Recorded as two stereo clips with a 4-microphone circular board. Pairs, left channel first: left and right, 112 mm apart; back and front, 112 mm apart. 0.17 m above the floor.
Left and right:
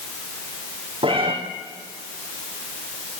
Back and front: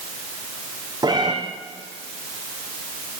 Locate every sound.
1.0 s a cat meowing: 55° right, 5 m